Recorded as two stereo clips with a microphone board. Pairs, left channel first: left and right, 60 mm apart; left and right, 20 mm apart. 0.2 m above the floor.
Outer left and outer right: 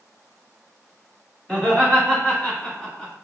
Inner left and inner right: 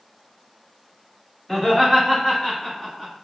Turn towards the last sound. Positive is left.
turn(degrees=25)  # may be behind; listen again after turning